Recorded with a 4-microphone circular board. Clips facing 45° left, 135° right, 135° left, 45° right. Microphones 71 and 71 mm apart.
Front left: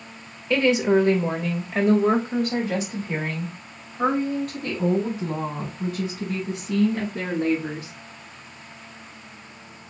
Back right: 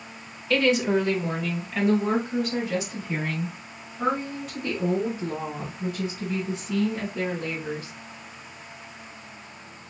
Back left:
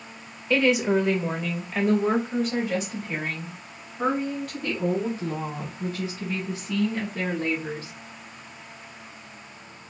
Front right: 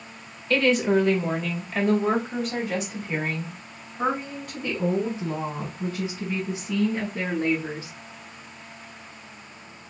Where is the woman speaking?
85° left, 1.0 m; by 7.9 s 30° left, 5 m.